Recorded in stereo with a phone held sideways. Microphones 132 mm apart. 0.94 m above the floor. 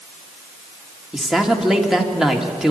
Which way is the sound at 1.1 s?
5° right (ahead or behind).